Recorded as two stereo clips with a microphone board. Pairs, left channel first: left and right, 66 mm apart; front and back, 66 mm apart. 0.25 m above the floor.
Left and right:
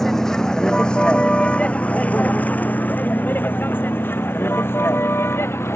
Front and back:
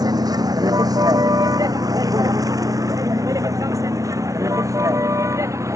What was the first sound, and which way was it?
A vehicle, 175° left.